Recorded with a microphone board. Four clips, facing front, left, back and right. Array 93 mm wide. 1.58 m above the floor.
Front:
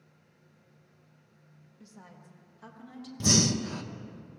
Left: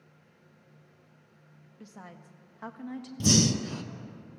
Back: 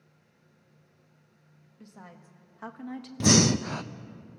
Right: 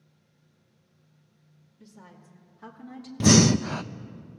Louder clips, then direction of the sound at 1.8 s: Left 3 dB, back 3 dB; 110° left.